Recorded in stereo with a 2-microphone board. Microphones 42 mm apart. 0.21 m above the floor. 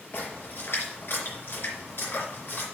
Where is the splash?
60° left (ahead or behind), 4 m.